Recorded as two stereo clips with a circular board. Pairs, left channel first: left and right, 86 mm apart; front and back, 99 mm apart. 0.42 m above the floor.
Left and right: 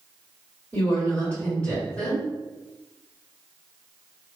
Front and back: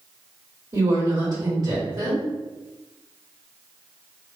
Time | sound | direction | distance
0.7 | a woman speaking | 160° left | 1.7 m